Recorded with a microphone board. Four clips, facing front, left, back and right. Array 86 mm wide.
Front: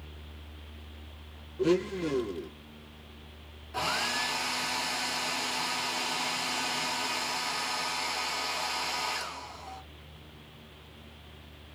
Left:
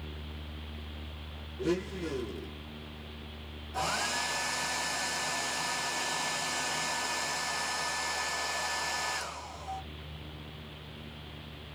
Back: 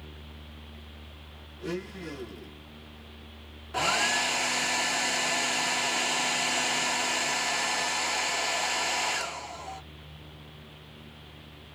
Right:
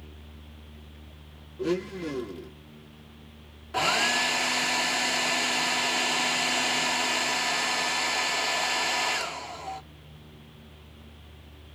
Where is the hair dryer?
115° right, 1.0 m.